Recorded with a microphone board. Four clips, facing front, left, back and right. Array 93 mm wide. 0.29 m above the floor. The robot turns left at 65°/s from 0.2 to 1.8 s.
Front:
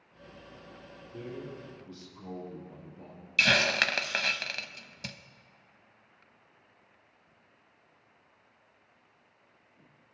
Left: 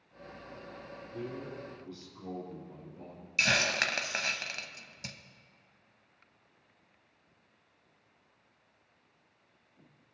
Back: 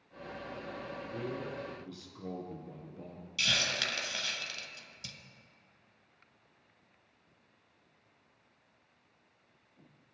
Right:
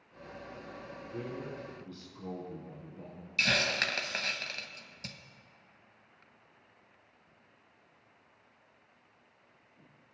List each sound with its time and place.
1.1 s a man speaking: 135° right, 3.5 m; by 3.3 s straight behind, 3.5 m
3.4 s a hiss: 10° left, 0.7 m